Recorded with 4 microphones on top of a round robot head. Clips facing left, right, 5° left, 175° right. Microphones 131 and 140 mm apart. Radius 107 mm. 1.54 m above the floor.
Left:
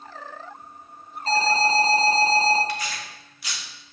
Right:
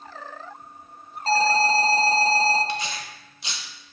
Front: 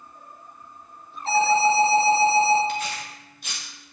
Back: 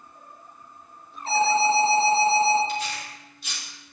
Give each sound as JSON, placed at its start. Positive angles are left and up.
{"t": 1.3, "sound": "an alarm", "azimuth_deg": -35, "distance_m": 4.0}
{"t": 2.7, "sound": "tearing paper", "azimuth_deg": -35, "distance_m": 0.8}